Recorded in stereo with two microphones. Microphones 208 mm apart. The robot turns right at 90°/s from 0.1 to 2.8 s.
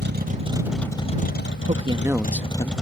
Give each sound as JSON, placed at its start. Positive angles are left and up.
{"t": 0.0, "sound": "a vehicle", "azimuth_deg": -60}
{"t": 1.7, "sound": "a man speaking", "azimuth_deg": -50}